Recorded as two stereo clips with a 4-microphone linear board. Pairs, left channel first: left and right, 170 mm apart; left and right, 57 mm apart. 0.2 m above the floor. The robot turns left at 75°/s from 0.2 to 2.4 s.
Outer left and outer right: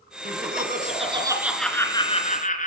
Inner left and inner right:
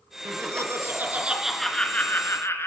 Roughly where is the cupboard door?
No cupboard door in this recording.